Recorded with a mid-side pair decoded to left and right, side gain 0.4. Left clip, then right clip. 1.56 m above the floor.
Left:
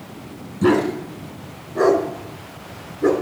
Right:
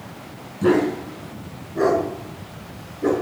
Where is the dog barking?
50° left, 4 m; by 3.1 s 70° left, 5 m.